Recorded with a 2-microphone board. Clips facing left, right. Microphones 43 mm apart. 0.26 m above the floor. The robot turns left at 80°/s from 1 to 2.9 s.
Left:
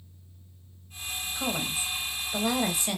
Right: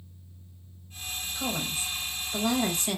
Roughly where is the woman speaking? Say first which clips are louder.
Left 1 dB; centre.